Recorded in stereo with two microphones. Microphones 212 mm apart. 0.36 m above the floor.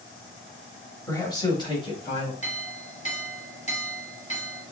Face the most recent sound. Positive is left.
turn(degrees=30)  # may be behind; listen again after turning